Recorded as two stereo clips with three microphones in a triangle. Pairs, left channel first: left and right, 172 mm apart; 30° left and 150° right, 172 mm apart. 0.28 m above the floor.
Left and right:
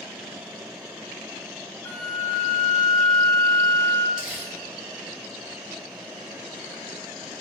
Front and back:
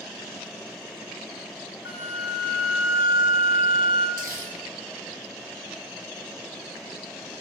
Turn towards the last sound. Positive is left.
turn(degrees=-175)